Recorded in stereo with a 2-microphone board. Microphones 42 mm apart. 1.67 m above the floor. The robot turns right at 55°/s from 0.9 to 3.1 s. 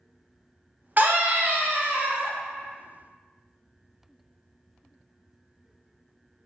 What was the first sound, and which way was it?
A scream, 115° right.